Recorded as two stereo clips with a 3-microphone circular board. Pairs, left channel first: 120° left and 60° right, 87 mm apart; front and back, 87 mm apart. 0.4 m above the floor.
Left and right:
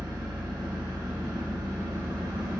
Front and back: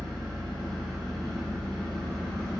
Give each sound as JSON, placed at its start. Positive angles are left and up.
{"t": 0.0, "sound": "an engine running", "azimuth_deg": -85, "distance_m": 1.1}